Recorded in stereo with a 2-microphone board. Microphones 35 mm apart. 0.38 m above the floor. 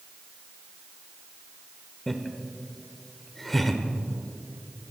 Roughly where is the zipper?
No zipper in this recording.